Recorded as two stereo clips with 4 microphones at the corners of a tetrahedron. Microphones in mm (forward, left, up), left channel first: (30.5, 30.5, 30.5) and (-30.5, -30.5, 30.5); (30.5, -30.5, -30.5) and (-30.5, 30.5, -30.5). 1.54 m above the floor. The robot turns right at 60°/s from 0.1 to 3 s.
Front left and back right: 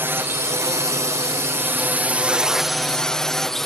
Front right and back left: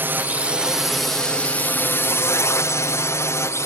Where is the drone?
Straight behind; by 3.6 s 40° right.